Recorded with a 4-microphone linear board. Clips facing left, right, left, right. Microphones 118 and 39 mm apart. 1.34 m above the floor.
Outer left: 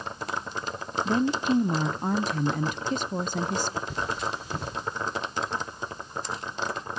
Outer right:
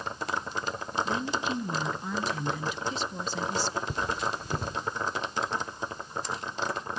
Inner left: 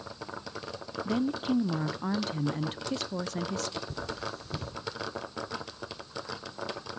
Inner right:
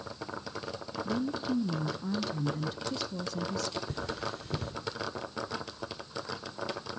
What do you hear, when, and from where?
1.1 s a woman speaking: 50° left (ahead or behind), 0.5 m
3.9 s cutlery clinking: 60° right (ahead or behind), 2.5 m